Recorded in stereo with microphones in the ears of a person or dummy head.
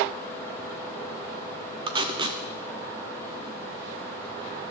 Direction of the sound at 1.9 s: 20° right (ahead or behind).